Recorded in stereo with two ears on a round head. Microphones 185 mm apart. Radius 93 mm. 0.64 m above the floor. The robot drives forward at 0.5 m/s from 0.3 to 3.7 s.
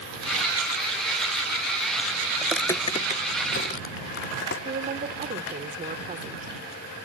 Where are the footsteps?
15° right (ahead or behind), 0.6 m; by 4.5 s 50° left (ahead or behind), 2.5 m.